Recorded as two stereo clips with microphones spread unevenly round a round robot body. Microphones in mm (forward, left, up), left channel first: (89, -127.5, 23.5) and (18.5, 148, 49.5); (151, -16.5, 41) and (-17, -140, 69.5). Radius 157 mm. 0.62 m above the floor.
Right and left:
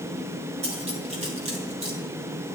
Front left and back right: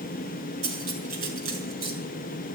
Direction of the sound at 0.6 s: 175° left.